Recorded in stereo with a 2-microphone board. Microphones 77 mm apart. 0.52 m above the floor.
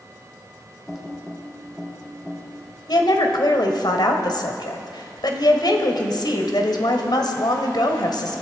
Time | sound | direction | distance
0.9 | typing on a keyboard | centre (ahead or behind) | 2.5 m
2.9 | a woman speaking | 70° left (ahead or behind) | 2 m